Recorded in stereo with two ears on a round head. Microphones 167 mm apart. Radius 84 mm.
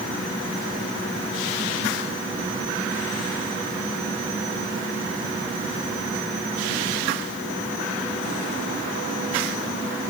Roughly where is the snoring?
I don't hear snoring.